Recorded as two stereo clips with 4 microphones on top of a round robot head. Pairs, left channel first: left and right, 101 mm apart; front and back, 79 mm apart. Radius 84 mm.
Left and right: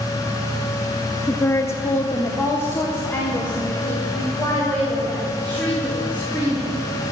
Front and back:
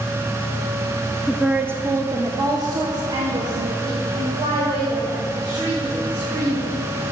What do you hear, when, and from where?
1.3 s a woman speaking: 90° left, 0.6 m; by 6.8 s 165° left, 3.5 m